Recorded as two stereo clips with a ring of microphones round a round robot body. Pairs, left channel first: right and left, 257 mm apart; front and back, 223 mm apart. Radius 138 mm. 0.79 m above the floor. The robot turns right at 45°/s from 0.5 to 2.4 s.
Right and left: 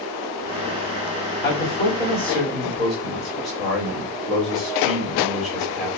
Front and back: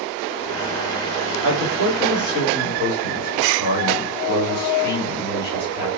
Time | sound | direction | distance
1.4 | a man speaking | 45° right | 3 m